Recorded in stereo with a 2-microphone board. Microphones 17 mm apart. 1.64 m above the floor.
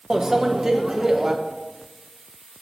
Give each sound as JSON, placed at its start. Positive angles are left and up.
{"t": 0.1, "sound": "a microwave", "side_deg": -25, "distance_m": 0.7}